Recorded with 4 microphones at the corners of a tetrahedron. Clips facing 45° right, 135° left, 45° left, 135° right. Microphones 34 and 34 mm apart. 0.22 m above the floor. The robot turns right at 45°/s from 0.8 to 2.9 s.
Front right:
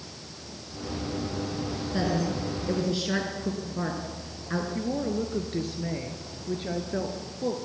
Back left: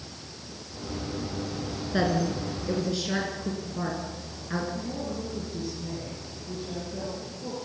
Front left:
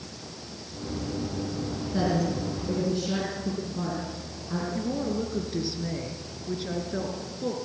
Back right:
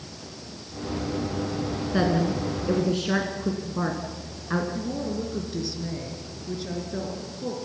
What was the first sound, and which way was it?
A woman speaking, 170° right.